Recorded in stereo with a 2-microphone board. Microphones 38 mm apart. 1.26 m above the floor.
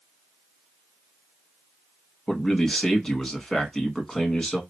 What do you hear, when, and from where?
2.3 s a man speaking: 10° left (ahead or behind), 1.8 m